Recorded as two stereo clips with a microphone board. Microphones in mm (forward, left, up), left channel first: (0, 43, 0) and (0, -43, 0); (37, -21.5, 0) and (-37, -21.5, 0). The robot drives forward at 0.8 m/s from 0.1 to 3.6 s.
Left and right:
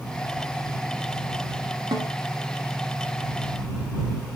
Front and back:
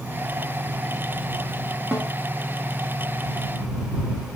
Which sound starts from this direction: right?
A snare drum, at 1.9 s.